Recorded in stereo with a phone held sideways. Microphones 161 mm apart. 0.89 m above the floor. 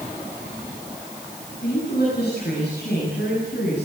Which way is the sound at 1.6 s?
75° left (ahead or behind).